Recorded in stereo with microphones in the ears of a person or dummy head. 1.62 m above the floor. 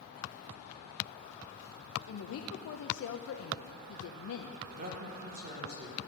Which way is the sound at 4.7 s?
45° right (ahead or behind).